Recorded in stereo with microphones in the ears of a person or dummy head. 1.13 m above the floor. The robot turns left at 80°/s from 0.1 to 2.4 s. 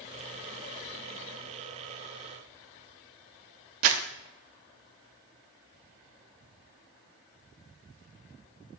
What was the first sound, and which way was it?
Crumpling, 40° right (ahead or behind).